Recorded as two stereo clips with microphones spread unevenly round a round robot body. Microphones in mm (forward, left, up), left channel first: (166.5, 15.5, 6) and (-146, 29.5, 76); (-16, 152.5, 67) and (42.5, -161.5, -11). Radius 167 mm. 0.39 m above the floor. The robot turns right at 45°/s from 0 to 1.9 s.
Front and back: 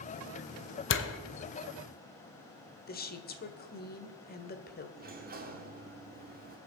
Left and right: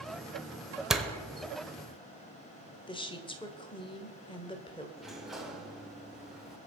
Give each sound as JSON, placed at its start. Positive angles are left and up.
{"t": 0.9, "sound": "a door slam", "azimuth_deg": -5, "distance_m": 1.2}
{"t": 2.9, "sound": "a woman speaking", "azimuth_deg": 15, "distance_m": 1.4}
{"t": 5.0, "sound": "a sliding door", "azimuth_deg": -130, "distance_m": 1.3}